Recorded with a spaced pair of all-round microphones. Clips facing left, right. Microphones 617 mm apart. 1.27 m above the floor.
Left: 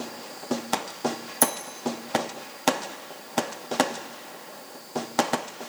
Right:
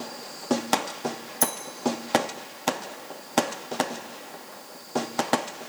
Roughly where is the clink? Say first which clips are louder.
Left 3 dB; right.